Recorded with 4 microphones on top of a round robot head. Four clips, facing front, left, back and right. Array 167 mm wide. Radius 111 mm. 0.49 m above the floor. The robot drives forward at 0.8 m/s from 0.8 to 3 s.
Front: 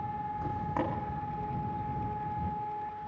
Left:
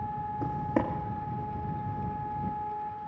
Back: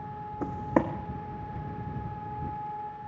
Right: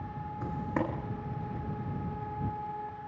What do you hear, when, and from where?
0.4 s footsteps: 155° left, 2 m